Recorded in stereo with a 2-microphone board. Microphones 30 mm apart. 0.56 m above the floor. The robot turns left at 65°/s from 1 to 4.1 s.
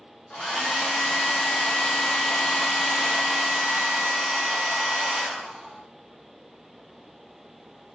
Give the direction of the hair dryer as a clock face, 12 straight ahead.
8 o'clock.